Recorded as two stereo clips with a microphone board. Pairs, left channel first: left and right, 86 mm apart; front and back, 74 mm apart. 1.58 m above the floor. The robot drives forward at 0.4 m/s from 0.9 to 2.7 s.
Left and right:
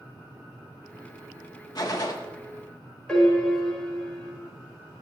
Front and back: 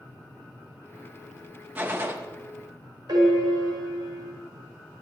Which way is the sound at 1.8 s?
120° left.